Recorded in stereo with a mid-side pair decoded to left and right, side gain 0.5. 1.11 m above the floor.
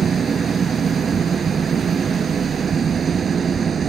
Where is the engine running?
45° right.